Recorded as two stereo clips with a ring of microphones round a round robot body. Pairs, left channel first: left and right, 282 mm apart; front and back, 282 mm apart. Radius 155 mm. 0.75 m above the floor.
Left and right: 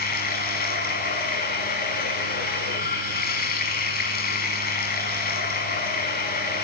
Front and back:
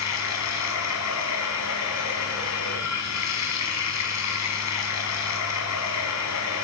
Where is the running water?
30° left, 5.5 m.